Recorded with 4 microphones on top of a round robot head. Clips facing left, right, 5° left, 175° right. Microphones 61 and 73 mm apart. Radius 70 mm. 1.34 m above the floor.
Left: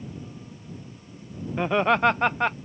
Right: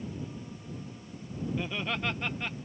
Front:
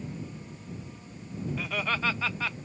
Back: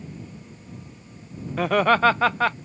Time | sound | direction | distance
1.6 | laughter | 150° left | ?